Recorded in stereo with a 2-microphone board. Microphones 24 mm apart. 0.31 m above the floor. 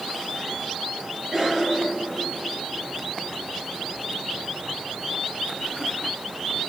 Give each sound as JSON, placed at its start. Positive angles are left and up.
{"t": 1.3, "sound": "a cough", "side_deg": 0, "distance_m": 5.0}